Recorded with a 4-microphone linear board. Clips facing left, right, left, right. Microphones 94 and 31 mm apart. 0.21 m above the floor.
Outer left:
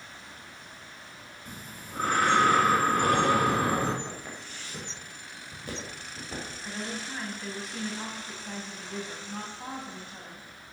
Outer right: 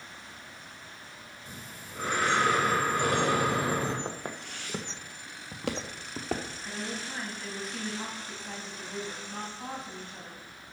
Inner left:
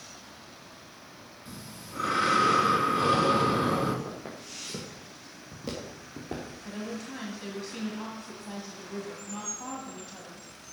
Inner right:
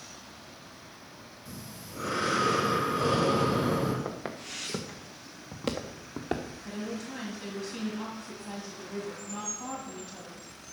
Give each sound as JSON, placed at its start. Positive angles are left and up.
{"t": 1.4, "sound": "breathing", "side_deg": 50, "distance_m": 2.0}
{"t": 4.0, "sound": "footsteps", "side_deg": -50, "distance_m": 2.0}
{"t": 6.6, "sound": "a woman speaking", "side_deg": 5, "distance_m": 1.6}